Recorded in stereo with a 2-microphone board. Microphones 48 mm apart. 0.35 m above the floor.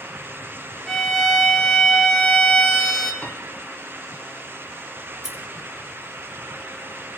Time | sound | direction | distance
0.9 | a violin | 5° left (ahead or behind) | 1.3 m
3.2 | a piano | 25° left (ahead or behind) | 1.5 m
5.1 | scissors | 5° right (ahead or behind) | 1.9 m